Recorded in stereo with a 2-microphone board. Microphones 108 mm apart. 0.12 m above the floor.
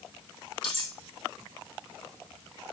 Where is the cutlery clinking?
50° left (ahead or behind), 3 m.